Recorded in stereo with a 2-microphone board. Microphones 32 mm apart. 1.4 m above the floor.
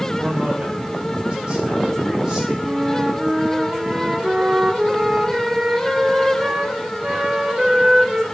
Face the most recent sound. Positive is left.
turn(degrees=-25)  # may be behind; listen again after turning